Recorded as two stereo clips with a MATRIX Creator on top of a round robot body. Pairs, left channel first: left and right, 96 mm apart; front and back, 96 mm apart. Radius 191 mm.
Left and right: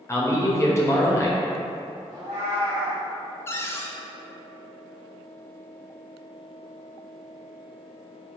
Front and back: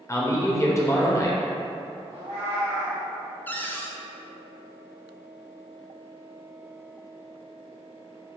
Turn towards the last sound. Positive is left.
turn(degrees=55)